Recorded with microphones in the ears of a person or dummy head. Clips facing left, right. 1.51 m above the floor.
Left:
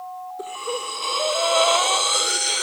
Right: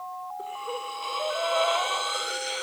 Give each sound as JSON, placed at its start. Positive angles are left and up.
{"t": 0.4, "sound": "breathing", "side_deg": 65, "distance_m": 1.4}